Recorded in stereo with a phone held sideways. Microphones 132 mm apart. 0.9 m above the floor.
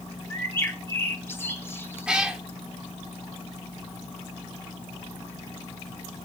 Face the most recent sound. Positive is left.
turn(degrees=-5)  # may be behind; listen again after turning